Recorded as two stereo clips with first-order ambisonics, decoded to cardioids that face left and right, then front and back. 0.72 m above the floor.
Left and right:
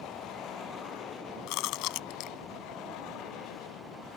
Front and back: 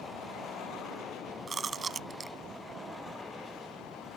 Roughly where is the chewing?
Left.